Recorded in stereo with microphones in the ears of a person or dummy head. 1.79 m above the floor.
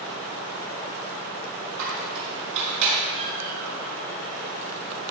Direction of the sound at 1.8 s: 65° right (ahead or behind).